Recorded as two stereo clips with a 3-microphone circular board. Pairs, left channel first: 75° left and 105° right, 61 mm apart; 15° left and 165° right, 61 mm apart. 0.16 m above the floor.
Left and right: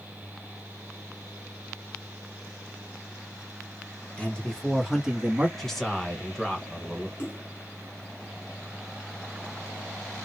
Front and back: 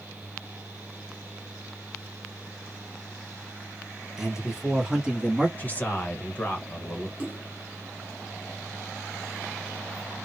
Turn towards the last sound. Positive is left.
turn(degrees=60)